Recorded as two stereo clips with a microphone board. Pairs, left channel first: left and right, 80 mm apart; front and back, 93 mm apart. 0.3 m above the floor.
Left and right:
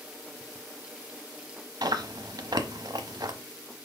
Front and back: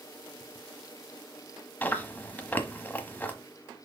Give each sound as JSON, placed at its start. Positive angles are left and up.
{"t": 1.8, "sound": "chewing", "azimuth_deg": -70, "distance_m": 0.9}